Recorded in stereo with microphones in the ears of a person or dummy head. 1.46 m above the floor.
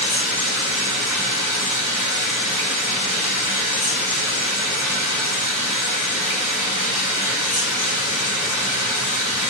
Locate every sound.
0.0 s running water: 20° right (ahead or behind), 3.5 m